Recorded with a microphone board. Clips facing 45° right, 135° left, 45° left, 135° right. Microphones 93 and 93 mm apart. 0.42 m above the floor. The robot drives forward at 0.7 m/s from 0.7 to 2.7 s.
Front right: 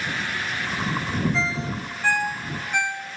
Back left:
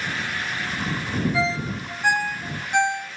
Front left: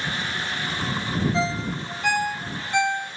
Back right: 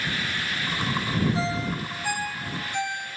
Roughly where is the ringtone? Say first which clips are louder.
Back left 2 dB, front left 2 dB; ahead left.